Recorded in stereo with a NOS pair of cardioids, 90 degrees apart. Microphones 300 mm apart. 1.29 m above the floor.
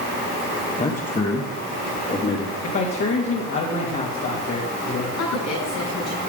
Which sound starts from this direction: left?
A woman speaking, at 5.2 s.